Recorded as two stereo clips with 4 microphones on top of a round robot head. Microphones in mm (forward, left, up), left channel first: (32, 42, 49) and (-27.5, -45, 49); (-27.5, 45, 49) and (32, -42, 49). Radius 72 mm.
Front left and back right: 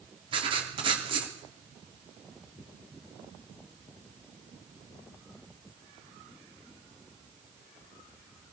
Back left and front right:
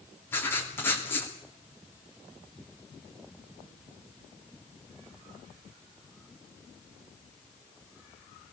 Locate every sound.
0.3 s writing: 165° right, 3 m